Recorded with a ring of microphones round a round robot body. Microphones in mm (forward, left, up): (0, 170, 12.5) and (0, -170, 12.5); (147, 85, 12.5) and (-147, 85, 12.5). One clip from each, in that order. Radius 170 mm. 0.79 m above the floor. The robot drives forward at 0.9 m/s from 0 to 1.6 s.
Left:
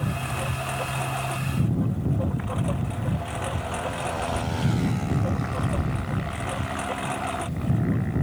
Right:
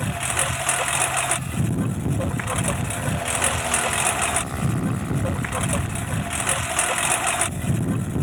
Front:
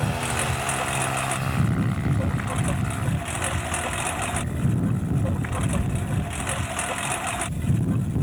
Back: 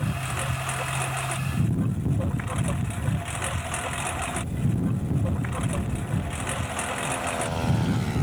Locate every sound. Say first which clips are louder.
0.0 s a lawn mower: right 5 dB, front 5 dB; 80° right; by 8.2 s 85° right